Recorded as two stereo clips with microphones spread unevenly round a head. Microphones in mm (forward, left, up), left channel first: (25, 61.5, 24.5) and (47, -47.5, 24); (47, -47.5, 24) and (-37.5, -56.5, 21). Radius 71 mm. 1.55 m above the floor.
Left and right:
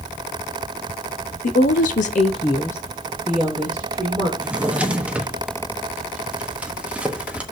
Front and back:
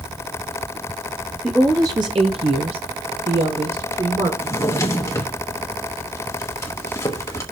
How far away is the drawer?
About 1.0 m.